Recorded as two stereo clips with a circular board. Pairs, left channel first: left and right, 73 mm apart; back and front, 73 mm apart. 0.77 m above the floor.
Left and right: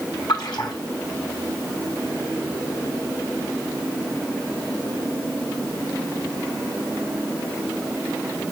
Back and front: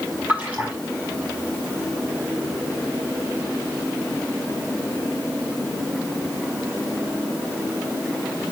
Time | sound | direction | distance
0.3 | a splash | 75° left | 3.5 m